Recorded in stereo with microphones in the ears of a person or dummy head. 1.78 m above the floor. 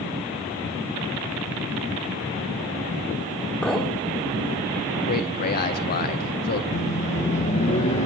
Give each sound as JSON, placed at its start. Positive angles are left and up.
{"t": 3.6, "sound": "a clink", "side_deg": 5, "distance_m": 4.0}
{"t": 5.1, "sound": "a man speaking", "side_deg": 45, "distance_m": 1.0}
{"t": 6.7, "sound": "a microwave", "side_deg": 35, "distance_m": 1.2}